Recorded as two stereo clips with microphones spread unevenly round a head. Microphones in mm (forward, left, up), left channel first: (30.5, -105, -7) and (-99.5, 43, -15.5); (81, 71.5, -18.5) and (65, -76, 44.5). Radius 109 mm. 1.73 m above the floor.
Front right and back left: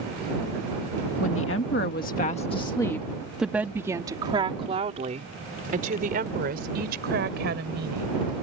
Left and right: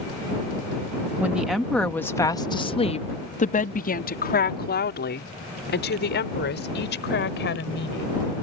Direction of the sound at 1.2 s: 20° right.